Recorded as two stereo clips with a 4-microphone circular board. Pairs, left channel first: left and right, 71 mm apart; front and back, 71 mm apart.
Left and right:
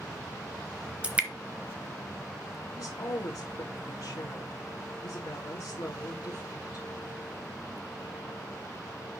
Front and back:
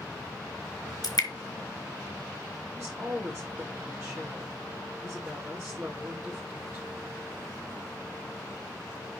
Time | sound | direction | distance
1.0 | dripping | 20° right | 1.3 m
2.7 | a woman speaking | 130° left | 3.5 m